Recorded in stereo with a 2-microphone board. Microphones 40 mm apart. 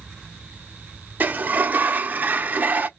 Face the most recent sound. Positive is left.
turn(degrees=-45)  # may be behind; listen again after turning